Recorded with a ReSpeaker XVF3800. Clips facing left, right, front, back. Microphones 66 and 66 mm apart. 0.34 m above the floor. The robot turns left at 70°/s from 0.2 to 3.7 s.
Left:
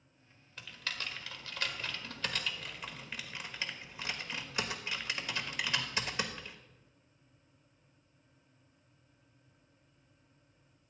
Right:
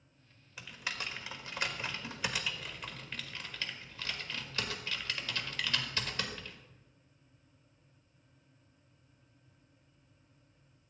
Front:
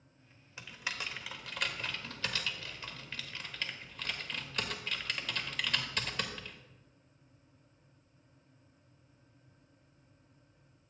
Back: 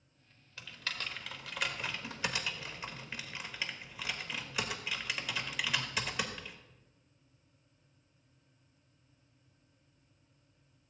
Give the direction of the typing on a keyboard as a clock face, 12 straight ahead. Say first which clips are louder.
Right 1 dB, front 1 dB; 1 o'clock.